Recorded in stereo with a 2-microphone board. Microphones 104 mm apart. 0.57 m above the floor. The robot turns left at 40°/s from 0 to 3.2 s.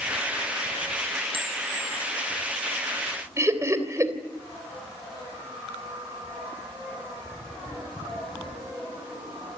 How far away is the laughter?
About 3 m.